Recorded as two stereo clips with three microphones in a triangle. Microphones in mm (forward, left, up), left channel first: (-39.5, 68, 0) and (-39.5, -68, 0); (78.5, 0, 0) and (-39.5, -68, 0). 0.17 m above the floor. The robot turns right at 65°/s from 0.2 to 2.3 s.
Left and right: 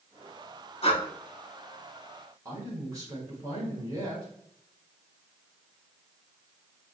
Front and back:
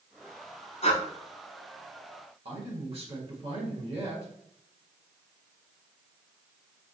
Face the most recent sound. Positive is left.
turn(degrees=-145)